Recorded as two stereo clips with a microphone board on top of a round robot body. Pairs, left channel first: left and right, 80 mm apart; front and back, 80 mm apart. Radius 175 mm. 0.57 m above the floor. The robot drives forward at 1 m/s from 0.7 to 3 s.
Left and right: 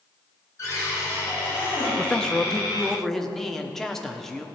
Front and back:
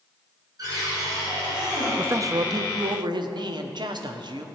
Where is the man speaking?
150° left, 0.6 m; by 4.5 s 175° left, 1.3 m.